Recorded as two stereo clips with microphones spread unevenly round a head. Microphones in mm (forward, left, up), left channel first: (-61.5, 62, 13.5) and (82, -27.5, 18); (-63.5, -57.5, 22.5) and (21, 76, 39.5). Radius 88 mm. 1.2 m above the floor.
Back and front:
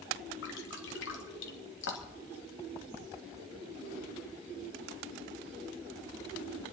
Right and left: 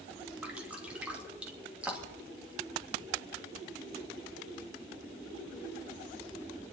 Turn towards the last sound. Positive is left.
turn(degrees=140)